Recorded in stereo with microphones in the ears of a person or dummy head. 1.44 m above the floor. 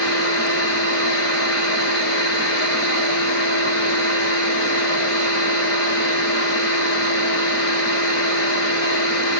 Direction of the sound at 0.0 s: 65° left (ahead or behind).